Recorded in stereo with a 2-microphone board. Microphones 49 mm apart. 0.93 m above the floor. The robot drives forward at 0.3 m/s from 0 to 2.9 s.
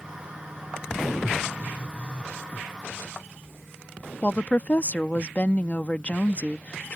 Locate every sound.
1.6 s a phone buzzing: 25° left (ahead or behind)
4.2 s a woman speaking: 35° left (ahead or behind)